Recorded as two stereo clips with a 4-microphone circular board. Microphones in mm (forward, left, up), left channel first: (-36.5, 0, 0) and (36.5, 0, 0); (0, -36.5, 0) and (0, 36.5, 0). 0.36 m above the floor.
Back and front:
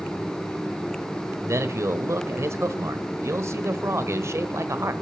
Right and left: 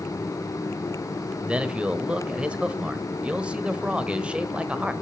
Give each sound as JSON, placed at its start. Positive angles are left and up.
{"t": 1.4, "sound": "a man speaking", "azimuth_deg": 25, "distance_m": 1.3}